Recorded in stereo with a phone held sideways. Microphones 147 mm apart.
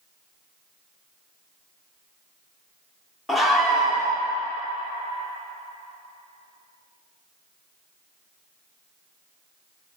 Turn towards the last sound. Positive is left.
turn(degrees=0)  # may be behind; listen again after turning